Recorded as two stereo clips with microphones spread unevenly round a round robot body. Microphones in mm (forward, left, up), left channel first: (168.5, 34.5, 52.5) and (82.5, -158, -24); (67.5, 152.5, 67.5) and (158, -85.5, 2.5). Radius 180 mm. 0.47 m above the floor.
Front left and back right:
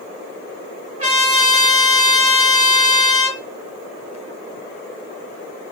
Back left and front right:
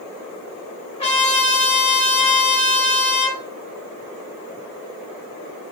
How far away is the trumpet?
About 0.6 m.